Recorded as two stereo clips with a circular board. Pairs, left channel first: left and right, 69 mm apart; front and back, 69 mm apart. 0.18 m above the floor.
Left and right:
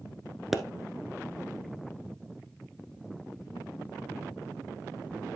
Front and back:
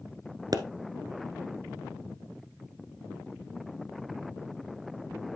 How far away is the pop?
About 0.9 m.